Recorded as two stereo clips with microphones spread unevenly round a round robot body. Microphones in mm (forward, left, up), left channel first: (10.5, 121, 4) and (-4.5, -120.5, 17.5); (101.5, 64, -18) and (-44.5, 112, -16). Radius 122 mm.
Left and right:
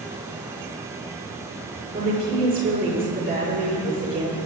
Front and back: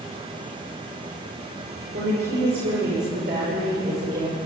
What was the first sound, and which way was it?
A woman speaking, 150° right.